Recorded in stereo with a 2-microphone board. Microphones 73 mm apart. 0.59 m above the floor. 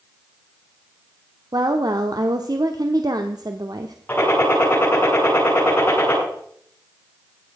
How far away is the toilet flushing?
No toilet flushing in this recording.